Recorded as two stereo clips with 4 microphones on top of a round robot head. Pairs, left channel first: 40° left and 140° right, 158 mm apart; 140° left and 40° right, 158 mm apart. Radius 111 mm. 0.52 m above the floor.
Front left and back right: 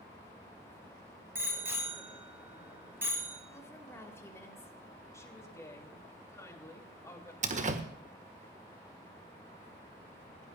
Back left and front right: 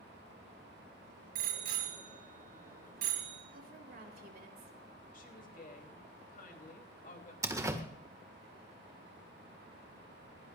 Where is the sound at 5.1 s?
110° left, 3 m.